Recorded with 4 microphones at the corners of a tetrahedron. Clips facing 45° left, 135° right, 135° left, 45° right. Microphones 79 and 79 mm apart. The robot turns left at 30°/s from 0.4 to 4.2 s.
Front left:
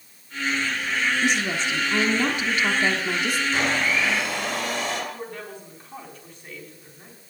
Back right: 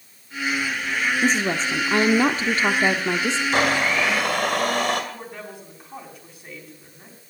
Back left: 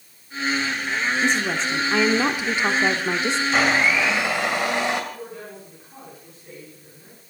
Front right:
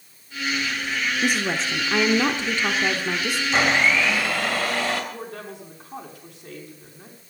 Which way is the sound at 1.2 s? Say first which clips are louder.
Back right 2 dB, back left 1 dB; 120° right.